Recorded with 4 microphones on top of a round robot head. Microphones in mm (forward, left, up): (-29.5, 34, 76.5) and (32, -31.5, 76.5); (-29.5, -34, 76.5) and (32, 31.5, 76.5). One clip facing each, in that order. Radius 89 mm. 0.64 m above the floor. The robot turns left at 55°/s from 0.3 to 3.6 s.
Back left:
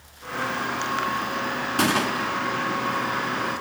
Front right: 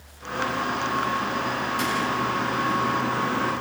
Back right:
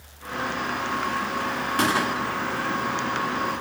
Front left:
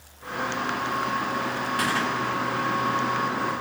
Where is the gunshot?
165° left, 1.3 m; by 2.4 s 130° left, 1.3 m.